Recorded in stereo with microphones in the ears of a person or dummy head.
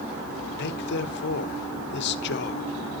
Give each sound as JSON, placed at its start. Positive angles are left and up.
{"t": 0.6, "sound": "a man speaking", "side_deg": 55, "distance_m": 0.9}